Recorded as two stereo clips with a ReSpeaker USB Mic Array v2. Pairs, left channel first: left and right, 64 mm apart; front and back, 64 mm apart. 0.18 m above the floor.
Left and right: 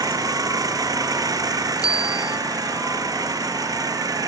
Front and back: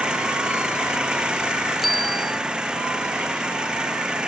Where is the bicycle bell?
90° left.